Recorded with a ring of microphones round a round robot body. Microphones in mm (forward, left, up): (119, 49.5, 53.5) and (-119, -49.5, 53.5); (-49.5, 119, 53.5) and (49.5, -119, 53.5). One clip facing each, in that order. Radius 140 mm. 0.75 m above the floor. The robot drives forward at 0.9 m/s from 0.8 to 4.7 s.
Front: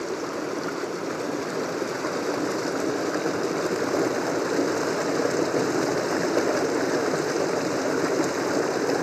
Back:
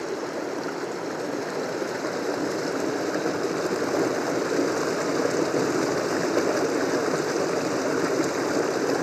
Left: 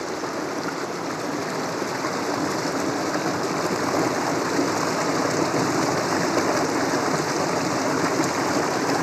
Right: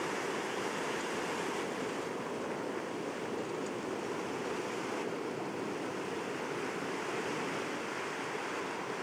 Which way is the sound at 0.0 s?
105° left.